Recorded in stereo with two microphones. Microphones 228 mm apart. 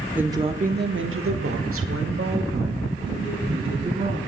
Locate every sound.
0.1 s a woman speaking: 5° right (ahead or behind), 1.0 m; by 4.2 s 50° right (ahead or behind), 4 m